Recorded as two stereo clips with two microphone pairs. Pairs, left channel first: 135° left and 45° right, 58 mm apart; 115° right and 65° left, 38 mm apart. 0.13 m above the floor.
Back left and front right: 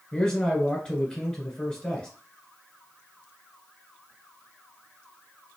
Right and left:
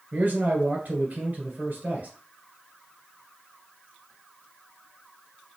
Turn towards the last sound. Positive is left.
turn(degrees=65)